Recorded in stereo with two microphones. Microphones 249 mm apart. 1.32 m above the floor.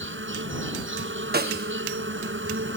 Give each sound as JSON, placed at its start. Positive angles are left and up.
{"t": 0.0, "sound": "an insect", "side_deg": -55}
{"t": 1.3, "sound": "a snare drum", "side_deg": -40}